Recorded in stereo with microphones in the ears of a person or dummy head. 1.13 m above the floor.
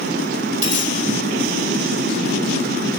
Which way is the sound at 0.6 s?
75° right (ahead or behind).